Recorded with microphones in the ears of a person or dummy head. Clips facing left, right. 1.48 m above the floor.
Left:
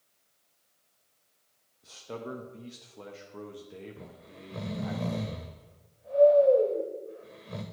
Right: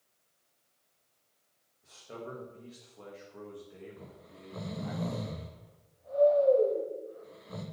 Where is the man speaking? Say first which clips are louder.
Left 4 dB; 55° left (ahead or behind), 1.0 m.